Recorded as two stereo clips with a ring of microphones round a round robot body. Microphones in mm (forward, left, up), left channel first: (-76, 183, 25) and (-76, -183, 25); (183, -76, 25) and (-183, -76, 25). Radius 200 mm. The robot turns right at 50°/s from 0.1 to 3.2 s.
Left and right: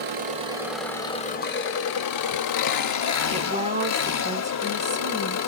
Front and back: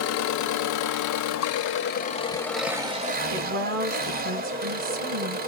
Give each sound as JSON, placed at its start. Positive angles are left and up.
{"t": 0.0, "sound": "an engine running", "azimuth_deg": -35, "distance_m": 0.8}
{"t": 3.3, "sound": "a woman speaking", "azimuth_deg": -150, "distance_m": 1.2}